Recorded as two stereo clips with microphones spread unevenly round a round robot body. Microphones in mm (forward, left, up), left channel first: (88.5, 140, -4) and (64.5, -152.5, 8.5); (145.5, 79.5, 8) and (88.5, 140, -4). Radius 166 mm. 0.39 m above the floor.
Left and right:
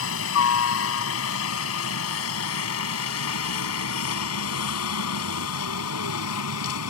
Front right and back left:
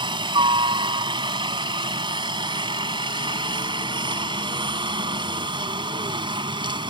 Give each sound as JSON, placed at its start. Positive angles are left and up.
{"t": 0.0, "sound": "a helicopter", "azimuth_deg": 130}